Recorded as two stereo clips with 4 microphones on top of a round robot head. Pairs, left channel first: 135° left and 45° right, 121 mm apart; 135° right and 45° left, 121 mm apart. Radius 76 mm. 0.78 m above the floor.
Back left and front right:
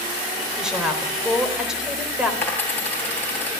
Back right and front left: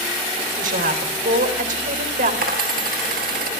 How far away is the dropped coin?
About 3 m.